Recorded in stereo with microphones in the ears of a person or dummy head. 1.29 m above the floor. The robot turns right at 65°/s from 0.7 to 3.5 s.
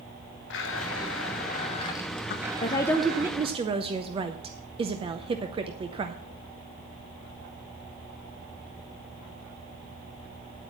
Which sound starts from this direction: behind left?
A woman speaking, at 2.3 s.